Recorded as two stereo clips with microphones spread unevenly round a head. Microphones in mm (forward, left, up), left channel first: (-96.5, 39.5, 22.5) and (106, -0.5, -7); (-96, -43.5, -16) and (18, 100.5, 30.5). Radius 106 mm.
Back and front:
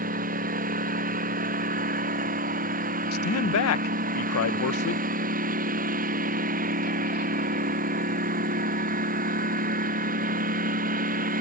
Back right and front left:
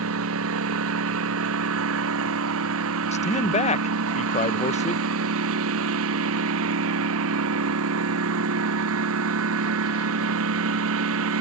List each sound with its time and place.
0.0 s a lawn mower: 40° left
3.1 s a man speaking: 170° right